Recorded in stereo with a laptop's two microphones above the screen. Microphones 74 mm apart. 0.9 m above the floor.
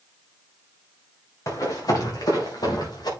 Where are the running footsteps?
50° left (ahead or behind), 4 m; by 3.1 s 65° left (ahead or behind), 6 m.